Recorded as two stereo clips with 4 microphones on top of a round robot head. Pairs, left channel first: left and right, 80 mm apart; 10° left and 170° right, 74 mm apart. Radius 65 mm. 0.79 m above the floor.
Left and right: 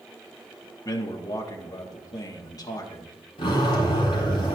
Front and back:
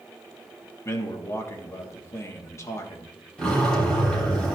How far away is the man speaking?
About 1.5 m.